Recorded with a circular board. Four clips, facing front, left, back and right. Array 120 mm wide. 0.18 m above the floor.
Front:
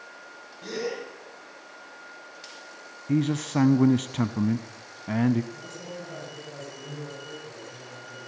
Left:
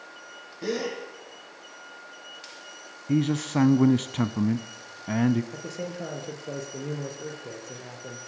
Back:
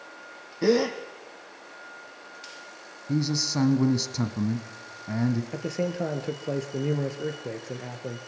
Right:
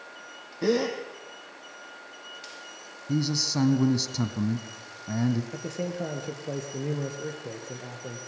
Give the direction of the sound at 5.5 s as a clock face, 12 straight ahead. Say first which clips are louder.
Right 2 dB, back 10 dB; 6 o'clock.